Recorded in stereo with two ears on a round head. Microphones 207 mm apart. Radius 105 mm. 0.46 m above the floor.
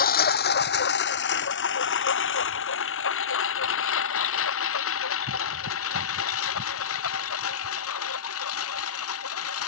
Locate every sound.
0.0 s a lawn mower: 40° left (ahead or behind); by 9.7 s 70° left (ahead or behind)